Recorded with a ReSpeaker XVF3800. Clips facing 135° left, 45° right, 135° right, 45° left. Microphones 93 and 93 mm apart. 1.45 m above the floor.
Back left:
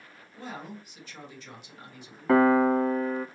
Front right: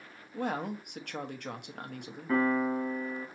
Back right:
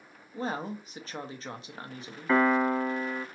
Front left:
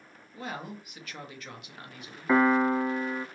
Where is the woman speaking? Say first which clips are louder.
Front right 7 dB, back right 5 dB; 75° right, 1.0 m.